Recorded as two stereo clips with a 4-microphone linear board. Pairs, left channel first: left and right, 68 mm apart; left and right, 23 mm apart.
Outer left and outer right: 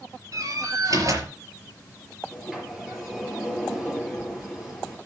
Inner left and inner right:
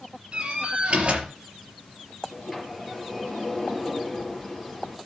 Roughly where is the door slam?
Right.